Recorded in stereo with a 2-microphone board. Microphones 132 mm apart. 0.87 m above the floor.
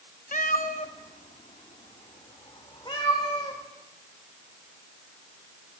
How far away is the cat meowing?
About 0.6 m.